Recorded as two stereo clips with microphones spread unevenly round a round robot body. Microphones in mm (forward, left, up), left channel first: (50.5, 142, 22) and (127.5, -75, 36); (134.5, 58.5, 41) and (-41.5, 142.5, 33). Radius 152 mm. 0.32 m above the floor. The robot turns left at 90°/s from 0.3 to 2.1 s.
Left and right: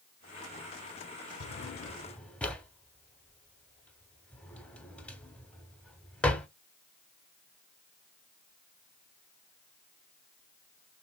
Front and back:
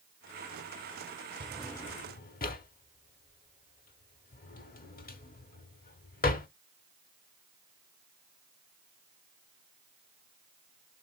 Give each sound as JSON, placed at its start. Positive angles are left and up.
{"t": 1.4, "sound": "a drawer", "azimuth_deg": 85, "distance_m": 0.6}